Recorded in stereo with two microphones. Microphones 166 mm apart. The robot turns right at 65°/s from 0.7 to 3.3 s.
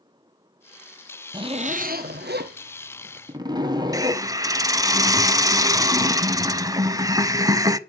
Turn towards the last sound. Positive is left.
turn(degrees=-20)  # may be behind; listen again after turning